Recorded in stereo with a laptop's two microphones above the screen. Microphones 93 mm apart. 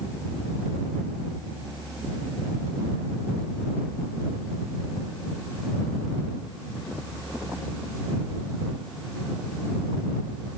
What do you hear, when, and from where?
Only background noise.